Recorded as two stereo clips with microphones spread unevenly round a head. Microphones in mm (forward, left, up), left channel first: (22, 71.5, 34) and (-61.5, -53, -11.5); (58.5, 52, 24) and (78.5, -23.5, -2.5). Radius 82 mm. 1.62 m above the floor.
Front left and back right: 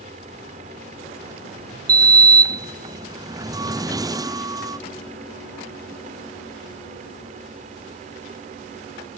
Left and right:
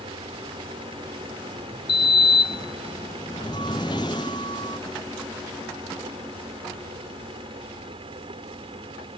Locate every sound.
0.0 s a fan: 70° right
1.9 s a sliding door: 170° left